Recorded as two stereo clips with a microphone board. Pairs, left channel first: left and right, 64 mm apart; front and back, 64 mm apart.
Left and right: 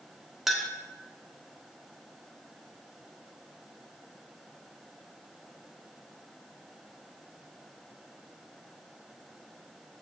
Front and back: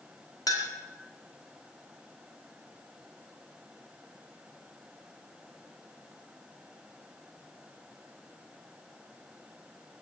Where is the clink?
5° right, 1.7 m.